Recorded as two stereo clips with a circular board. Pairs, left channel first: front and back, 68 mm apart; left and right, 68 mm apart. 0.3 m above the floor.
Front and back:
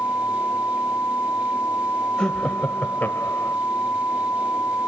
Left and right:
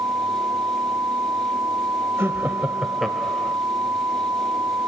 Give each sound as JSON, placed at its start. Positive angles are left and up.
{"t": 2.2, "sound": "laughter", "azimuth_deg": -75, "distance_m": 1.2}